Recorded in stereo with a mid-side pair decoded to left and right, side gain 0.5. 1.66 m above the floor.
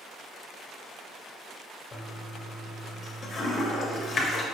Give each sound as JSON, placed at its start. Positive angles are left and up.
{"t": 1.9, "sound": "a toilet flushing", "azimuth_deg": 50, "distance_m": 0.8}